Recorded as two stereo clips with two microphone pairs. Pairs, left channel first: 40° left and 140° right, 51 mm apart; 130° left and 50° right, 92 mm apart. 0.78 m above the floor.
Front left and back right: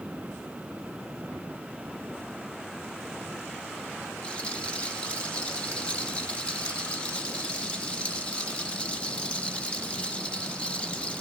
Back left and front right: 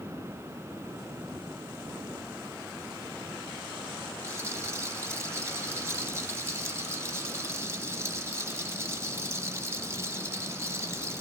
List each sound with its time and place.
4.2 s a rattle: 15° right, 1.3 m